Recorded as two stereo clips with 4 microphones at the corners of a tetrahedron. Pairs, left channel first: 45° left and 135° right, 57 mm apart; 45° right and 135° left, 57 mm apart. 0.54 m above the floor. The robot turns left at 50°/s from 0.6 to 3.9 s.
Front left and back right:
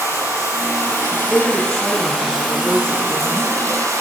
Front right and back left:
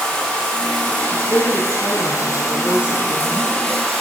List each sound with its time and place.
0.0 s running water: 25° left, 6 m; by 4.0 s 140° right, 6 m
1.1 s a woman speaking: 20° right, 7.5 m; by 3.5 s 145° right, 7.5 m